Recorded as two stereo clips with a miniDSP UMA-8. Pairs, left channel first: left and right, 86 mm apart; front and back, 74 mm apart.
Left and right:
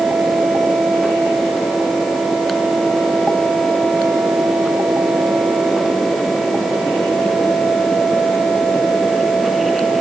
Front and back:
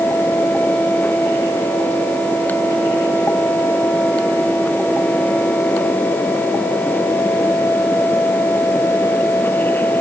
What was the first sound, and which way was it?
Only background noise.